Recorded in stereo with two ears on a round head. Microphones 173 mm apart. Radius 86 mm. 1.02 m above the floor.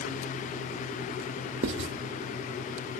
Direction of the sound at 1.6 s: 65° right (ahead or behind).